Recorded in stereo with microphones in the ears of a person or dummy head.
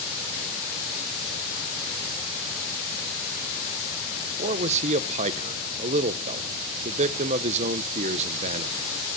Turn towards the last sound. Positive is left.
turn(degrees=-40)  # may be behind; listen again after turning